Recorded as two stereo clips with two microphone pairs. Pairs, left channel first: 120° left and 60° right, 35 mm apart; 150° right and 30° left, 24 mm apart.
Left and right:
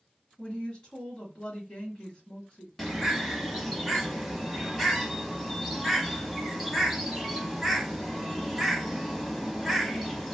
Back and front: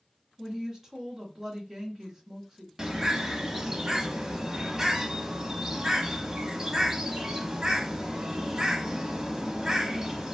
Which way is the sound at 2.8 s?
30° left.